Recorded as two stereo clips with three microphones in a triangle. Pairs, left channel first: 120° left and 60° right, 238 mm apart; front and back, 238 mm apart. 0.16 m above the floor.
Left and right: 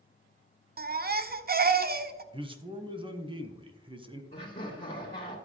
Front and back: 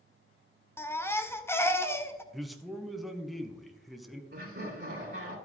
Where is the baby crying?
75° right, 0.6 m.